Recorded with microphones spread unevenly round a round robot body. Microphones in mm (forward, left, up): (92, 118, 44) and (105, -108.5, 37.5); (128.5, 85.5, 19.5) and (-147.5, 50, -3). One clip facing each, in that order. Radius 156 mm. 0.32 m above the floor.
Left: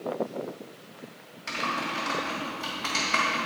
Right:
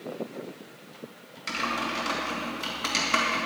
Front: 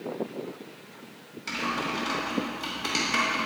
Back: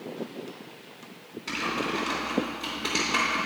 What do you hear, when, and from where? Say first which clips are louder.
1.5 s typing on a keyboard: right 1 dB, back 2 dB; 55° right, 1.8 m